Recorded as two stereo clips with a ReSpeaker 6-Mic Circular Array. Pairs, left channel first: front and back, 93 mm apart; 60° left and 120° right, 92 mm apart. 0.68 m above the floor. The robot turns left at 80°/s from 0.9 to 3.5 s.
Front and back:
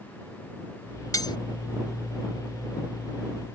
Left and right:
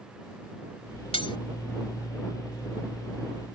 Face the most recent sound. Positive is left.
turn(degrees=-140)